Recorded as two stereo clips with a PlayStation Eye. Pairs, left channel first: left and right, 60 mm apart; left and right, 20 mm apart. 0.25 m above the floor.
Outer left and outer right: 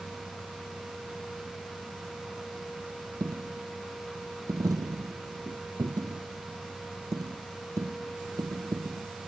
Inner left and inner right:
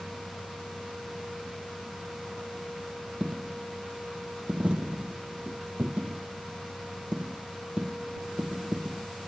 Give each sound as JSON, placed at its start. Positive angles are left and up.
{"t": 3.2, "sound": "a dropped coin", "side_deg": -80}